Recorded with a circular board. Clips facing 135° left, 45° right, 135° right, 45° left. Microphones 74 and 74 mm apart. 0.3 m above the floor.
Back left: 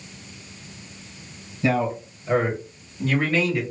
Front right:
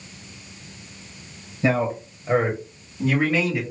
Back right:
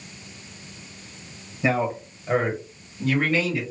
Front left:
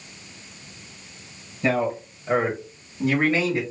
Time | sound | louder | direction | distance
1.6 | a man speaking | front right 1 dB, front left 1 dB | 65° right | 1.6 m